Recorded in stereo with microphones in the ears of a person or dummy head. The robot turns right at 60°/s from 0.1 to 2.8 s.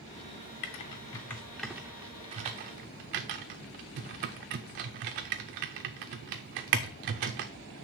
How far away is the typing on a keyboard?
About 0.5 m.